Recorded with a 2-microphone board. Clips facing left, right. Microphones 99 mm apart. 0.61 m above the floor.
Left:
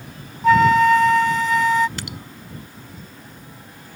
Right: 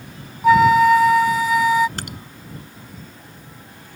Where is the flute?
5° right (ahead or behind).